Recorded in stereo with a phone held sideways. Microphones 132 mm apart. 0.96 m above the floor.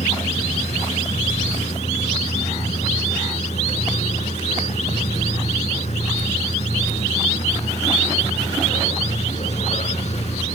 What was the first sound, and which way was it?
A machine running, 60° left (ahead or behind).